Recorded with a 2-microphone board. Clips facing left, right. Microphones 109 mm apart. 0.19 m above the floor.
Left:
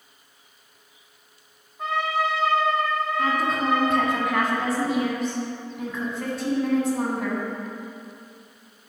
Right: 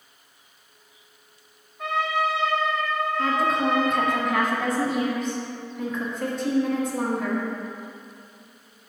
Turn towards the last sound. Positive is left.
turn(degrees=0)  # may be behind; listen again after turning